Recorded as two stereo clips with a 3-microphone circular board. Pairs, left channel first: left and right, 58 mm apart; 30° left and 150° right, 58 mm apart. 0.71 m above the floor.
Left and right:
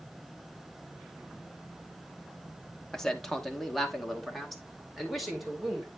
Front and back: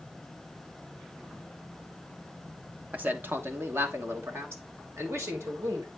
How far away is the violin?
No violin in this recording.